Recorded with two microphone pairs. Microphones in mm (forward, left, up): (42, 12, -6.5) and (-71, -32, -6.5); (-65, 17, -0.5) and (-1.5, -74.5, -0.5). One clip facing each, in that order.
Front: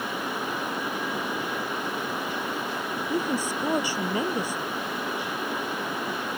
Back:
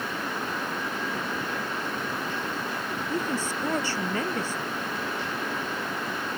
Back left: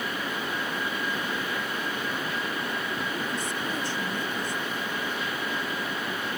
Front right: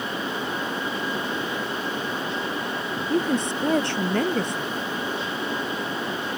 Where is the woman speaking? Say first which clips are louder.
Front 2 dB, front right 8 dB; 55° right.